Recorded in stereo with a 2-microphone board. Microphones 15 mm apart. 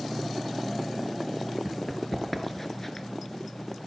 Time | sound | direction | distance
1.6 | running footsteps | centre (ahead or behind) | 1.5 m